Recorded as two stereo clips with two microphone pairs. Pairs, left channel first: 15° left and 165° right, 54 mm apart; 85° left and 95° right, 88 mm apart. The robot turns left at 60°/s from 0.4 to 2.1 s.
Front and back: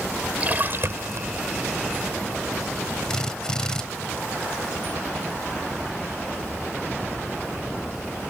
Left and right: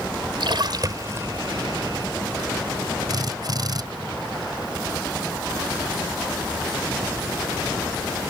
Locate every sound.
0.4 s a splash: 105° right; by 1.3 s 155° right
3.1 s a drill: 60° right